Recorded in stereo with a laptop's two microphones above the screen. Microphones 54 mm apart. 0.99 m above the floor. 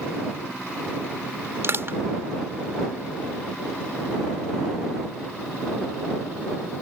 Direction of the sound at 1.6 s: 50° right (ahead or behind).